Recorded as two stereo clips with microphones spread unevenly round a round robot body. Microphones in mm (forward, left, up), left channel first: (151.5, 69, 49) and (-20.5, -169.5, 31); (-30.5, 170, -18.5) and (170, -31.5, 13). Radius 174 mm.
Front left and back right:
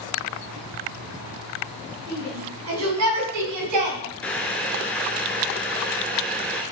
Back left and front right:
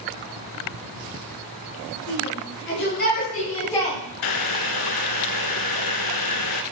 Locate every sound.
2.1 s a shout: straight behind, 4 m; by 4.0 s 135° right, 2.5 m
4.2 s boiling: 140° left, 0.7 m